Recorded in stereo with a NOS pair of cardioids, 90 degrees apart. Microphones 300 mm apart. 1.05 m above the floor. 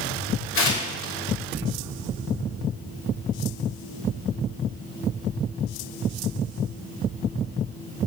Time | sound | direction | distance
0.6 | tearing paper | 45° left | 2.5 m